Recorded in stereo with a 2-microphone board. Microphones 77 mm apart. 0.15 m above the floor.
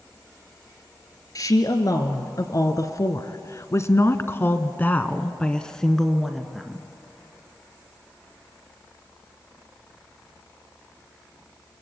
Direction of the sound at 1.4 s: 50° left (ahead or behind).